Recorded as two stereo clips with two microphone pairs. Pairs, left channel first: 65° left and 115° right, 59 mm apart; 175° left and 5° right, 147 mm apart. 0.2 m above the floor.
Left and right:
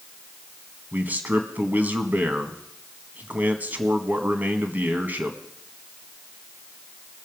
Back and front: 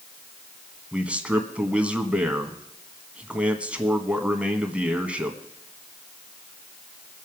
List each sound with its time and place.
0.9 s a man speaking: 80° right, 1.4 m